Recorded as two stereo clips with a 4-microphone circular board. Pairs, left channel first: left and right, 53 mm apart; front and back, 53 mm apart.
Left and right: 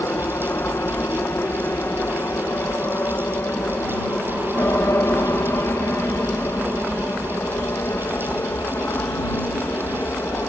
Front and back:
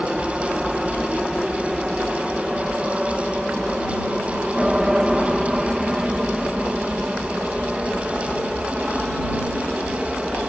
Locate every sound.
0.0 s an aircraft: 95° left; by 10.5 s 100° left